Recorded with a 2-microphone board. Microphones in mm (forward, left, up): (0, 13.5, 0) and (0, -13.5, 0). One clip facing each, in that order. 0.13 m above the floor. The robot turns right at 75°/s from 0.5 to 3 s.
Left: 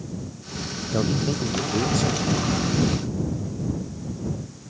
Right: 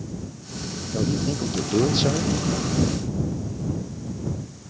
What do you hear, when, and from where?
0.9 s a man speaking: 140° left; by 2.3 s 110° right